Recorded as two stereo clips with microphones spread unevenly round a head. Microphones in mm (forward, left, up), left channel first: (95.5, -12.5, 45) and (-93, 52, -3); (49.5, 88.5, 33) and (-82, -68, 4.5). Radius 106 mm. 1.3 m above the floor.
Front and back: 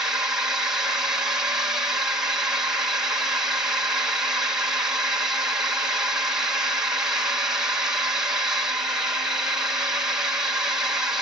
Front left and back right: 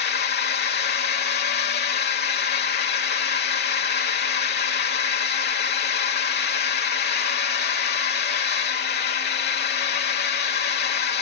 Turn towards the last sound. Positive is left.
turn(degrees=85)